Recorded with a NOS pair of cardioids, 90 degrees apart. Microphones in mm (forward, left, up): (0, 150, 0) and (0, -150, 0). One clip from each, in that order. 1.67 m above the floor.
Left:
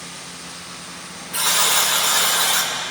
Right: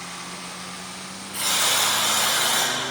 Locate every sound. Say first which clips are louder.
1.3 s a buzzer: left 3 dB; 60° left, 9 m